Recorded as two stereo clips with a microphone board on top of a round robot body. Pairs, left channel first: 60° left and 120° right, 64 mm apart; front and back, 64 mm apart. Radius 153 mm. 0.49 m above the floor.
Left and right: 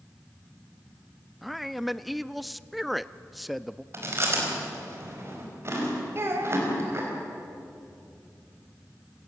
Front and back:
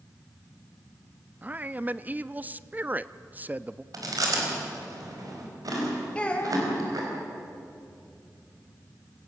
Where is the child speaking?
70° right, 2.5 m.